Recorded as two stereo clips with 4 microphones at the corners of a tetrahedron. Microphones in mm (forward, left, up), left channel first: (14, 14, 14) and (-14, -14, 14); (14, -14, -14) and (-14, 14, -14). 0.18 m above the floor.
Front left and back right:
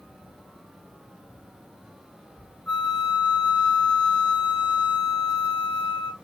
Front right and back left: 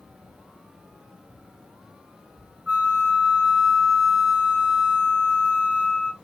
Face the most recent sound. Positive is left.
turn(degrees=80)